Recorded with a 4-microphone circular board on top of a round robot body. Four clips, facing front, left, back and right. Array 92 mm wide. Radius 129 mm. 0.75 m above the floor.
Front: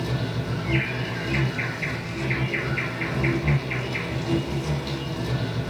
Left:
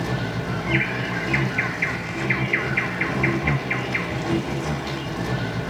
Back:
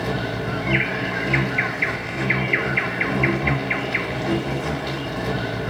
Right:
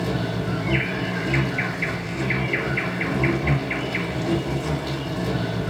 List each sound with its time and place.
0.0 s an insect: 160° left, 1.8 m